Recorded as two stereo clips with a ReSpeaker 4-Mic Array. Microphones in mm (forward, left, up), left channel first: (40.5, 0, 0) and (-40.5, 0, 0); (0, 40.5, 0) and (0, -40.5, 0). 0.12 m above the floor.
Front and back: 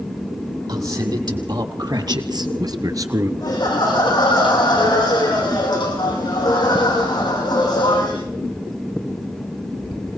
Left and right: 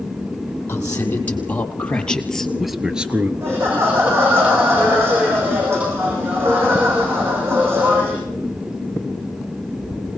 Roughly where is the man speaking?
Behind left.